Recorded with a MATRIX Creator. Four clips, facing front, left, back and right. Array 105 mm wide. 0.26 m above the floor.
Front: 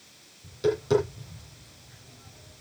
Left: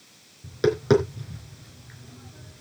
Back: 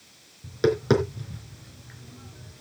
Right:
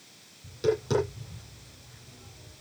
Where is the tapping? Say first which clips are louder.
Left 6 dB, back 3 dB; 135° left, 3.5 m.